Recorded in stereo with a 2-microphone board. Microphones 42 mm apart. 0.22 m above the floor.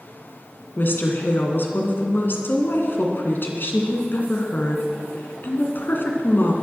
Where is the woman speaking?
55° left (ahead or behind), 2.5 m.